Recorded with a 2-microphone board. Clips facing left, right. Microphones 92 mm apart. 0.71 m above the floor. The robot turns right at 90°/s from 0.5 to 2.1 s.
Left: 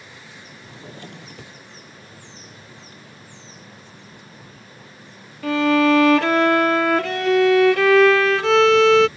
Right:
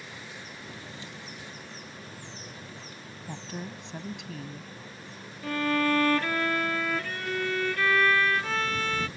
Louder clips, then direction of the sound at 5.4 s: Left 10 dB; 80° left.